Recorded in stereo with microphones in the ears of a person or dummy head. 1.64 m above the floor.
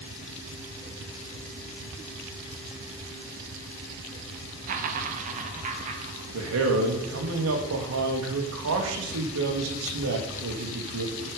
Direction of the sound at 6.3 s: 75° right (ahead or behind).